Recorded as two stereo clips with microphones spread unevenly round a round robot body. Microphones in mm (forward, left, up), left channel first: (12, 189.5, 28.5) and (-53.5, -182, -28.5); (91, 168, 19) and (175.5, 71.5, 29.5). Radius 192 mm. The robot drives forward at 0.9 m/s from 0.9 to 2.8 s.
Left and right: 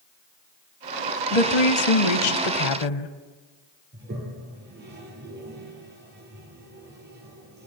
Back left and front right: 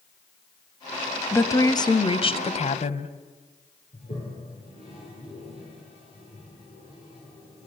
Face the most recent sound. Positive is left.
turn(degrees=-165)